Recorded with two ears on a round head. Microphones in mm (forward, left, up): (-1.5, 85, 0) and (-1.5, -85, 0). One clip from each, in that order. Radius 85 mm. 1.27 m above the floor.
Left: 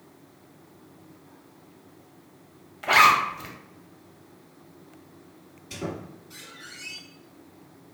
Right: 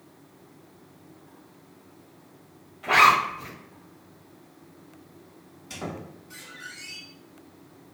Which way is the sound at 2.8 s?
45° left (ahead or behind).